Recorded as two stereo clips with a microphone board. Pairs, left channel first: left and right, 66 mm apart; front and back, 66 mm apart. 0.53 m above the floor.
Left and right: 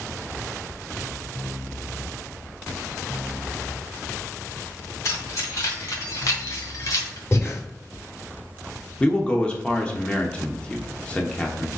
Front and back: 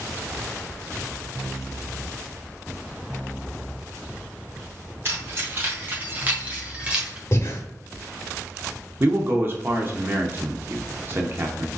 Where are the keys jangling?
125° left, 2.5 m; by 7.2 s 100° left, 1.2 m.